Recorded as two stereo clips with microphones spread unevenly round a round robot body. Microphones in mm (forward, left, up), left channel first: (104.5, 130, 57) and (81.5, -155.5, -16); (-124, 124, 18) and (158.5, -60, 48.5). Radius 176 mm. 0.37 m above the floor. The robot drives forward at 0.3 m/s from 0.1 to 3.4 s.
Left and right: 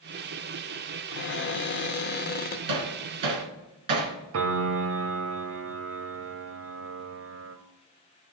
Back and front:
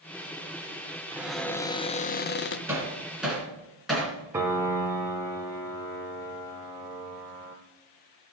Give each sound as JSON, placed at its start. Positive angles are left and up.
{"t": 1.1, "sound": "a cupboard door", "azimuth_deg": 55, "distance_m": 0.5}
{"t": 2.7, "sound": "hammering", "azimuth_deg": -115, "distance_m": 1.7}
{"t": 4.3, "sound": "a piano", "azimuth_deg": -120, "distance_m": 0.8}